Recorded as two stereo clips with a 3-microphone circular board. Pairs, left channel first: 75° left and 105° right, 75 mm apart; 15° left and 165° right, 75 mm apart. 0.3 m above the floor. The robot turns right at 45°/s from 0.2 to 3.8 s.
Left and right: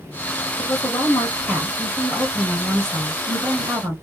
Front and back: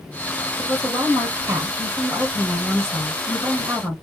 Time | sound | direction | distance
0.6 | a woman speaking | 105° left | 1.0 m